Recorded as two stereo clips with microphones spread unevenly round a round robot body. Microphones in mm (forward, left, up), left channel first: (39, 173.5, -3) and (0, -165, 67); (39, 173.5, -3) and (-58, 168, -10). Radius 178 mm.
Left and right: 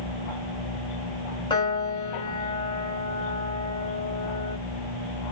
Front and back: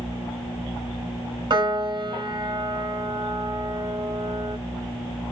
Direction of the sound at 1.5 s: 150° left.